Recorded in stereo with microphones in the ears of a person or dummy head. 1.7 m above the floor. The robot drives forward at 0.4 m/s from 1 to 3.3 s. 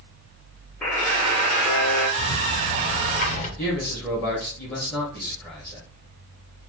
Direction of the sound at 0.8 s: 10° left (ahead or behind).